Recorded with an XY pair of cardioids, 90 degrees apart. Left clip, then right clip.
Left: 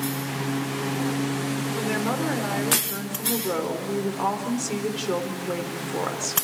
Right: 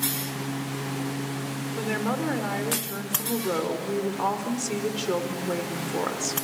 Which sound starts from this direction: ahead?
A woman speaking, at 1.8 s.